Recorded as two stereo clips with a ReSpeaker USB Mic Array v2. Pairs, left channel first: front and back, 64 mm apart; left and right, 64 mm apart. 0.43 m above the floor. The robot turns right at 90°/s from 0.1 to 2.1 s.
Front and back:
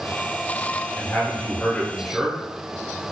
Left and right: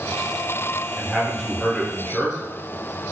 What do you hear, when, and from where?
1.0 s a man speaking: 15° right, 0.7 m; by 2.4 s 90° left, 0.7 m